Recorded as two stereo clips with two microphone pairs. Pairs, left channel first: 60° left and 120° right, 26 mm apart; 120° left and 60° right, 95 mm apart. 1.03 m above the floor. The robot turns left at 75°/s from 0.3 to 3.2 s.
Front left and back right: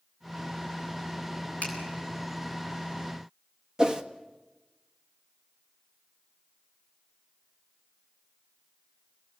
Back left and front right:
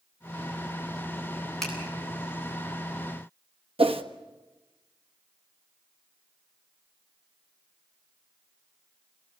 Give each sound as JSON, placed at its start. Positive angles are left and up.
{"t": 1.6, "sound": "a finger snap", "azimuth_deg": 35, "distance_m": 8.5}
{"t": 3.8, "sound": "a whoosh", "azimuth_deg": -60, "distance_m": 1.3}